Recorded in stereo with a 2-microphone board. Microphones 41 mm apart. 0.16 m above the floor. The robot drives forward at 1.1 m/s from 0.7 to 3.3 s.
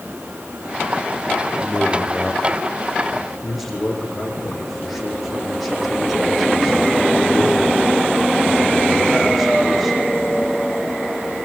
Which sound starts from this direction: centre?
A man speaking, at 1.6 s.